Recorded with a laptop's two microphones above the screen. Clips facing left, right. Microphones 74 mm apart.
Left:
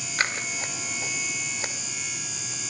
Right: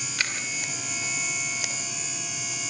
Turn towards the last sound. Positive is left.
turn(degrees=35)  # may be behind; listen again after turning